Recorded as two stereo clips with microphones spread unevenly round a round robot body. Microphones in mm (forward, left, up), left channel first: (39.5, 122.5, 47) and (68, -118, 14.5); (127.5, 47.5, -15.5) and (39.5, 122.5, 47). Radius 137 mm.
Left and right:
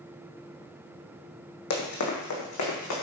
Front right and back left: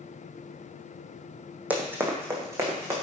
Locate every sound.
1.7 s running footsteps: 80° left, 1.7 m; by 3.0 s 85° left, 3 m